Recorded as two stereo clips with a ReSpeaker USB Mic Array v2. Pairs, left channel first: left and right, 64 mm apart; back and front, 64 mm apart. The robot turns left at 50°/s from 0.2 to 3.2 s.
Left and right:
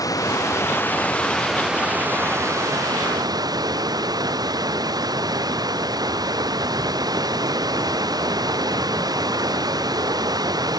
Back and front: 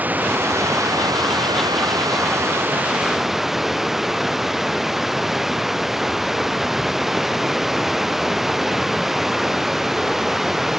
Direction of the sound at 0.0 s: 65° left.